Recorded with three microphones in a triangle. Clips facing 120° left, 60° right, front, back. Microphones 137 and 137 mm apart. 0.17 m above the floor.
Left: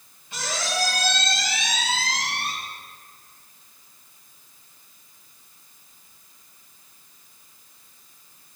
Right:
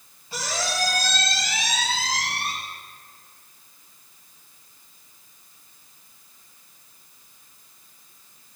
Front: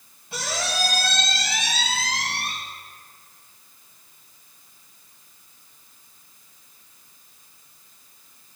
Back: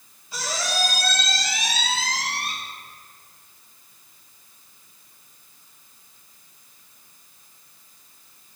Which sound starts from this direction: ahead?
A squeak, at 0.3 s.